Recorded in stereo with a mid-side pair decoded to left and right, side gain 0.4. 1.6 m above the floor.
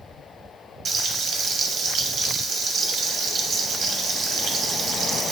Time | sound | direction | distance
0.8 | frying | 70° right | 0.6 m